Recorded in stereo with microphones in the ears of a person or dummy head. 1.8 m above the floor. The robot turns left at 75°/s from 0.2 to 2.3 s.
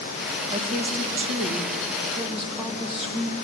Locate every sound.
0.5 s a woman speaking: 40° right, 2.5 m; by 3.4 s 175° right, 2.5 m